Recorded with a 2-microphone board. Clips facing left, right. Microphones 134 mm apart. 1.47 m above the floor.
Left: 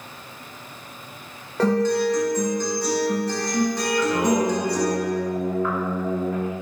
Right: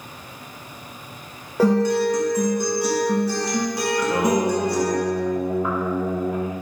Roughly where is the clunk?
No clunk in this recording.